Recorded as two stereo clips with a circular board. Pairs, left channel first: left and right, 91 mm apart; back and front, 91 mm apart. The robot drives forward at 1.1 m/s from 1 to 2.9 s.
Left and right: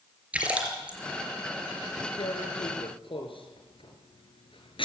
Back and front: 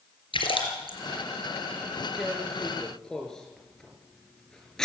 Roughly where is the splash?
Behind.